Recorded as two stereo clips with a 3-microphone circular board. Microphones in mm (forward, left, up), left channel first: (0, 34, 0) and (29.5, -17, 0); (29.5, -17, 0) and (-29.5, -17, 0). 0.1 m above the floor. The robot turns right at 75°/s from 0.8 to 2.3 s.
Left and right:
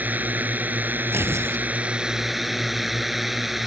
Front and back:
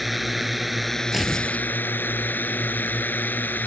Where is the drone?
90° right; by 3.7 s 20° left.